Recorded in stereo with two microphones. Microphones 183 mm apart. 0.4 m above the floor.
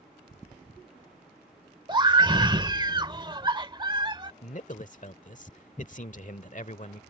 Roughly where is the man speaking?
Left.